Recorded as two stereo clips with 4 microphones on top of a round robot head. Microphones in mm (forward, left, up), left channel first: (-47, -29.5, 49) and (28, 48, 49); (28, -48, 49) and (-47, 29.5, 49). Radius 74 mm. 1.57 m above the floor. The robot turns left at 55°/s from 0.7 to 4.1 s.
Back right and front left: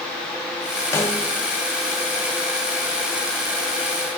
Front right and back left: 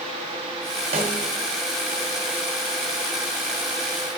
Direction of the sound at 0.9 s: 160° left.